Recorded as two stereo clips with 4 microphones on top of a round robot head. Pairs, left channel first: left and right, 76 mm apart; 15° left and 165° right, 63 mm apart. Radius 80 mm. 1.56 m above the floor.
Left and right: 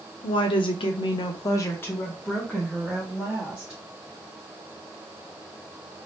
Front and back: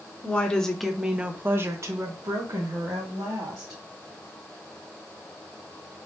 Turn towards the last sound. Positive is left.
turn(degrees=-160)